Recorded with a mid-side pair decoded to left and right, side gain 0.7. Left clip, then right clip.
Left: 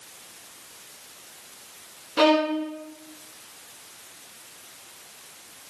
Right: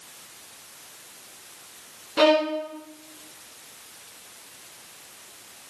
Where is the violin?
Straight ahead, 0.5 m.